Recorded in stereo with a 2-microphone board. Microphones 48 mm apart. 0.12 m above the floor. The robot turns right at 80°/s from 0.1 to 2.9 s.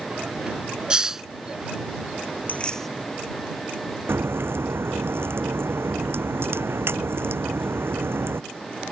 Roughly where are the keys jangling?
Behind left.